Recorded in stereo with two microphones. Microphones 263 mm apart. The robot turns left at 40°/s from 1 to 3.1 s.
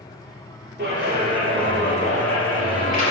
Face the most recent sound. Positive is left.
turn(degrees=140)